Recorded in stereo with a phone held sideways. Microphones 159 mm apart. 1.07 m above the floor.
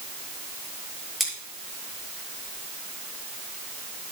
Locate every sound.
1.2 s scissors: centre (ahead or behind), 8 m